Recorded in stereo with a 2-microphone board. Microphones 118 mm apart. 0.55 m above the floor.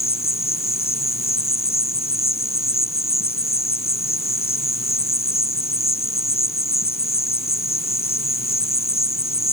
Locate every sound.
0.0 s an insect: 55° left (ahead or behind)